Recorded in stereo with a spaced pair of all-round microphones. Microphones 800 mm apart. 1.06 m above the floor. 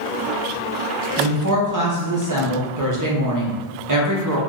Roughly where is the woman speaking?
Right.